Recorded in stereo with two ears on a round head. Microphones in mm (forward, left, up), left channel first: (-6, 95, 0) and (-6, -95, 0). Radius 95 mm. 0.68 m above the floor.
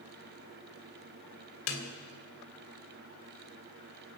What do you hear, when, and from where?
1.7 s a snare drum: 65° left (ahead or behind), 2.5 m